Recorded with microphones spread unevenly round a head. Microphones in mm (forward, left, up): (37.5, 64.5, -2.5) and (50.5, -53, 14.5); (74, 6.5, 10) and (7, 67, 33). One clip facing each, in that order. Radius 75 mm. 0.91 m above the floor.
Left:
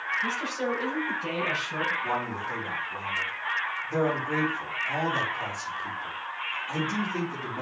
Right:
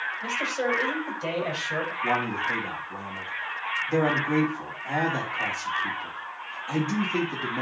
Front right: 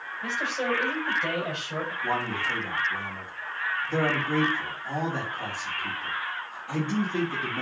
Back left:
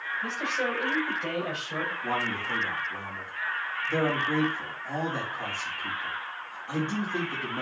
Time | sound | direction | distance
0.2 | a man speaking | 125° right | 5 m
2.0 | a man speaking | 150° right | 5 m